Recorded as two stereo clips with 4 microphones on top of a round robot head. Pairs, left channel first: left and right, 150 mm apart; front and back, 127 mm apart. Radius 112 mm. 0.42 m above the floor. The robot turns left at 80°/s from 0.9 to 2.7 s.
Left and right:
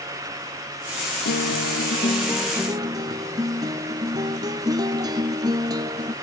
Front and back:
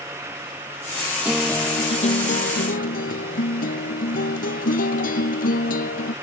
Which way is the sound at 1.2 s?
95° left.